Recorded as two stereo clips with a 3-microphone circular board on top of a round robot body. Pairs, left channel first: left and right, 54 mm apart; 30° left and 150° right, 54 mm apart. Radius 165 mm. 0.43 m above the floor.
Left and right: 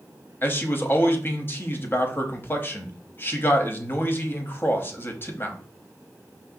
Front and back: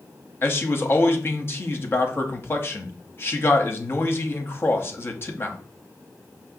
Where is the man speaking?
60° left, 1.0 m.